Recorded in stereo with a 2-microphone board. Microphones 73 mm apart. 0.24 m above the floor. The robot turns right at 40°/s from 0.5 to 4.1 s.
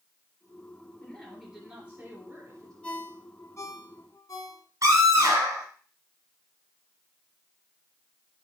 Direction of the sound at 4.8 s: 50° right (ahead or behind).